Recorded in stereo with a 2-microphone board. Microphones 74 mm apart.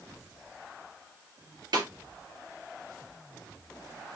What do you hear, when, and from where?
1.7 s a snare drum: 60° right (ahead or behind), 1.9 m